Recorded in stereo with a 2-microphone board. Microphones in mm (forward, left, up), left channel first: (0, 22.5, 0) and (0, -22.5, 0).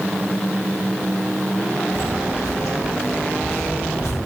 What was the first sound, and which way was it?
Footsteps, 80° left.